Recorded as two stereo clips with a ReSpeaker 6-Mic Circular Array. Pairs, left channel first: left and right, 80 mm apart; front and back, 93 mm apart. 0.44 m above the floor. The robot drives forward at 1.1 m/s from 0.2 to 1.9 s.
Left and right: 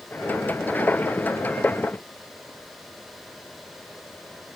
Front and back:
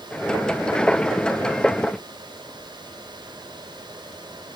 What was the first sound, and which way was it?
Only background noise.